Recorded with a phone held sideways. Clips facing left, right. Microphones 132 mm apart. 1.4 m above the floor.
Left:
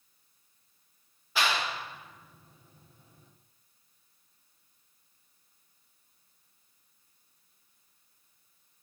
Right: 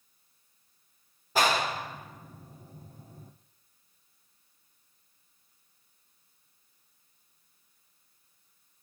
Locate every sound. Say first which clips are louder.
1.4 s a clap: right 4 dB; 40° right (ahead or behind), 0.7 m